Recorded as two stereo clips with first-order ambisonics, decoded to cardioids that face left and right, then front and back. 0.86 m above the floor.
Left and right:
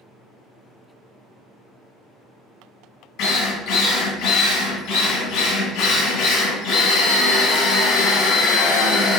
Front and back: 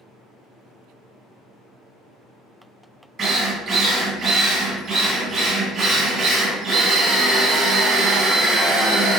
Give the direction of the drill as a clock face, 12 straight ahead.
8 o'clock.